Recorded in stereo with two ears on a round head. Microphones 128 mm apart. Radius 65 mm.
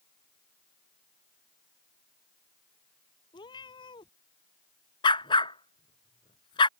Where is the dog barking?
35° left (ahead or behind).